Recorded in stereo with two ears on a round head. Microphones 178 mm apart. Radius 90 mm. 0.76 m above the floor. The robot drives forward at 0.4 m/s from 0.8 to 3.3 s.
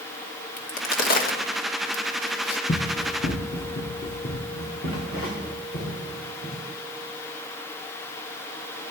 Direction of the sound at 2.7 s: 45° left (ahead or behind).